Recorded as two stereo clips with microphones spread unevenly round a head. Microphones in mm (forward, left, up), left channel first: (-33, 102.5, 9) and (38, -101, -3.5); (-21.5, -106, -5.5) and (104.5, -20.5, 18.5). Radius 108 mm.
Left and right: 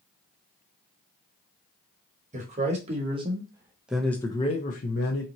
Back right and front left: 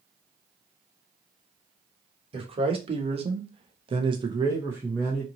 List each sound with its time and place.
2.3 s a man speaking: 15° right, 1.2 m; by 5.3 s 120° left, 0.7 m